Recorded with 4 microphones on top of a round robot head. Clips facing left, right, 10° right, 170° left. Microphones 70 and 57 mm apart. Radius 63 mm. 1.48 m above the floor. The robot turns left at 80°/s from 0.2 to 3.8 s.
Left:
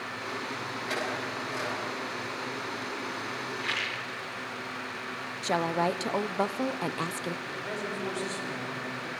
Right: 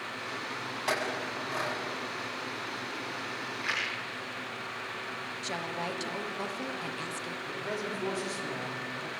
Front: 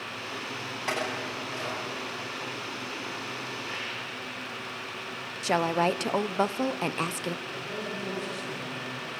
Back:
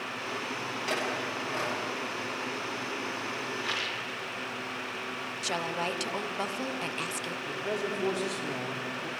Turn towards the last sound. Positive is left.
turn(degrees=-170)